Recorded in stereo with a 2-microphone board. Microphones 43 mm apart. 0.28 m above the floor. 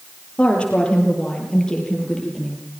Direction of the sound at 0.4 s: 25° left (ahead or behind).